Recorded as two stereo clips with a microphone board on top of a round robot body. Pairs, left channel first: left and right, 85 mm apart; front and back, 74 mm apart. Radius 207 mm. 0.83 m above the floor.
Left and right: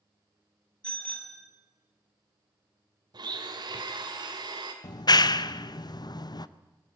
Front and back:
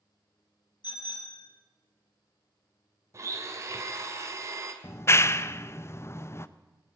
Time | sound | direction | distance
0.8 | a bicycle bell | 10° left | 3 m
3.1 | a blender | 130° right | 2 m
4.8 | a clap | 55° left | 0.8 m